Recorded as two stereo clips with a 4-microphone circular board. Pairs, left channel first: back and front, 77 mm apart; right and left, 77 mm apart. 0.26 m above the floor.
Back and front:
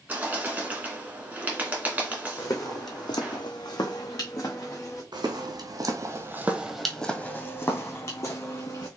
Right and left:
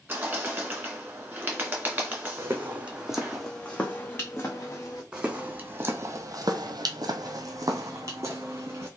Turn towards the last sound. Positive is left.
turn(degrees=140)